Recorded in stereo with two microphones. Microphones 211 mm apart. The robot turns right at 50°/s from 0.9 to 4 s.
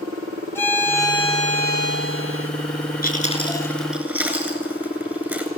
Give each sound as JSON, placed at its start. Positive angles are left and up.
{"t": 0.6, "sound": "a violin", "azimuth_deg": 10, "distance_m": 3.5}
{"t": 3.0, "sound": "chewing", "side_deg": 40, "distance_m": 8.0}